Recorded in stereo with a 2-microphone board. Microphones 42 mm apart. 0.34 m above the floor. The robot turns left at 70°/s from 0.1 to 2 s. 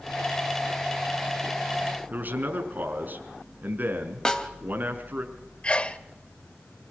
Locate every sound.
2.1 s a man speaking: 45° right (ahead or behind), 4.5 m
4.2 s a snare drum: 20° left (ahead or behind), 2 m
5.6 s a sneeze: 30° left (ahead or behind), 0.9 m